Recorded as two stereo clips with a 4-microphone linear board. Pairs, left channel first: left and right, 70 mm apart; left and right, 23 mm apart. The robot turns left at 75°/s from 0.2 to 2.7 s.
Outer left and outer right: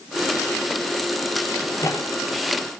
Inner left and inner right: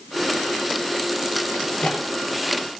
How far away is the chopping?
No chopping in this recording.